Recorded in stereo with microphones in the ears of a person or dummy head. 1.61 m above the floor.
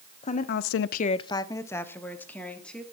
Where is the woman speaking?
35° left (ahead or behind), 0.9 m; by 2.8 s 5° left (ahead or behind), 3 m.